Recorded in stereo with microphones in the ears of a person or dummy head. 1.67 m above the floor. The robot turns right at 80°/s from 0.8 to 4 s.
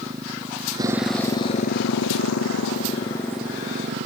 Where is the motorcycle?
20° right (ahead or behind); by 4.1 s 45° right (ahead or behind).